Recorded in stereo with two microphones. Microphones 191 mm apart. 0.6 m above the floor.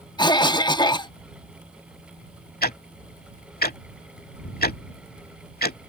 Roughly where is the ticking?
Left.